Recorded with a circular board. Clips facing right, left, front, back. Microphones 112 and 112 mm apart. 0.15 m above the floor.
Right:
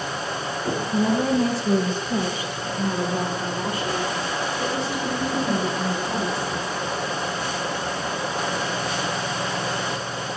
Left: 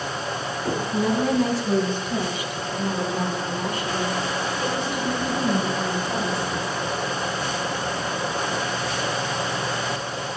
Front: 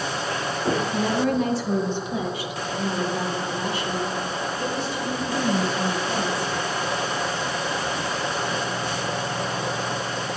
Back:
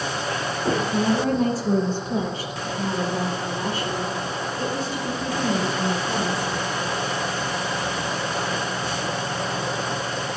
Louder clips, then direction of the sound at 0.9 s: Right 1 dB, back 2 dB; 140° right.